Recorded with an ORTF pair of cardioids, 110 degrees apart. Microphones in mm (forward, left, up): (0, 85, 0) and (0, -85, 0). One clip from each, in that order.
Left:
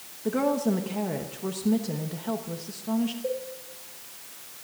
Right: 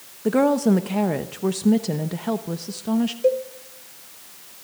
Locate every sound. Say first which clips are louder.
0.2 s a woman speaking: right 7 dB; 40° right, 0.9 m
3.2 s a cowbell: right 15 dB; 65° right, 1.7 m